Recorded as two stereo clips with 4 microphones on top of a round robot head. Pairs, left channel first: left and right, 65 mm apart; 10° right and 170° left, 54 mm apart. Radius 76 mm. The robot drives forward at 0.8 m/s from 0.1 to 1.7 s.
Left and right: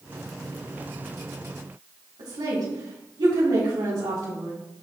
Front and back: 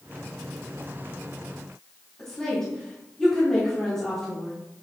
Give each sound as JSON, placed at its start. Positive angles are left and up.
{"t": 2.2, "sound": "a woman speaking", "azimuth_deg": -85, "distance_m": 4.0}